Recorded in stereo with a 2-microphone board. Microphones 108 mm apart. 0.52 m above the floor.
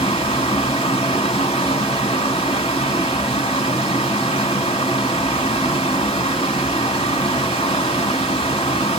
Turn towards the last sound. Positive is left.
turn(degrees=60)  # may be behind; listen again after turning